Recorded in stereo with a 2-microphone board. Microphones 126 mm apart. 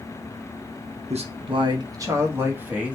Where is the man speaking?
60° right (ahead or behind), 0.7 m; by 3.0 s 10° right (ahead or behind), 1.3 m.